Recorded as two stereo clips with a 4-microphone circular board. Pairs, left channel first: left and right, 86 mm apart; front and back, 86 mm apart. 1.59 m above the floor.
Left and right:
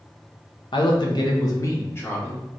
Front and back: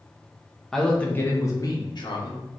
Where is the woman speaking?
85° left, 0.9 m; by 2.4 s 20° left, 1.3 m.